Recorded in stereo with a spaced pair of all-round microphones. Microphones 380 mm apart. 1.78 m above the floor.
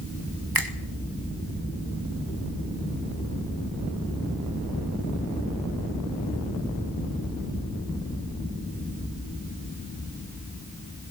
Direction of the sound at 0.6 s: 65° right (ahead or behind).